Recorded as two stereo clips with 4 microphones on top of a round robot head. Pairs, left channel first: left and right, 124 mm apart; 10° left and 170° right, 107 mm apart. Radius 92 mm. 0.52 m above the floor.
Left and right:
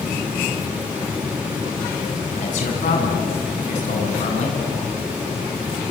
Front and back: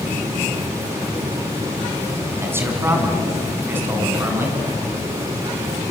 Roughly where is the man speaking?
Behind left.